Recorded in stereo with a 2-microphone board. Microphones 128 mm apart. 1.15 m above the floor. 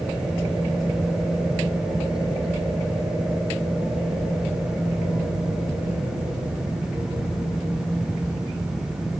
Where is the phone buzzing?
No phone buzzing in this recording.